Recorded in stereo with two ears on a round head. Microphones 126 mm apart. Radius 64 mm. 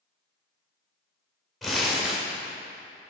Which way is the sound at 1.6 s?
Centre (ahead or behind).